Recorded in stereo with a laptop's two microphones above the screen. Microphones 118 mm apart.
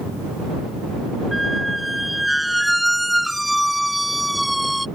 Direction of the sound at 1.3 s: Centre (ahead or behind).